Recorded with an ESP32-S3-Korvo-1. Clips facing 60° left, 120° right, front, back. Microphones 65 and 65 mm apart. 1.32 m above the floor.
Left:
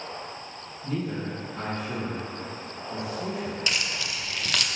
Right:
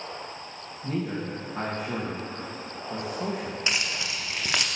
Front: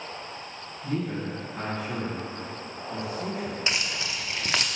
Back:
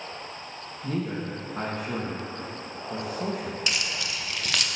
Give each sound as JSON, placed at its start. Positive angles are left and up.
{"t": 0.8, "sound": "a man speaking", "azimuth_deg": -160, "distance_m": 1.6}
{"t": 3.7, "sound": "keys jangling", "azimuth_deg": -60, "distance_m": 0.7}